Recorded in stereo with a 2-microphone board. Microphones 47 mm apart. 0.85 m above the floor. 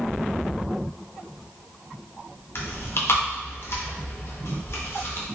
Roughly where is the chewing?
Left.